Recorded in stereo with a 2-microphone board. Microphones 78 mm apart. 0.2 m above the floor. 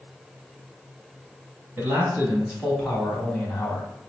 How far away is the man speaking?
About 1.8 m.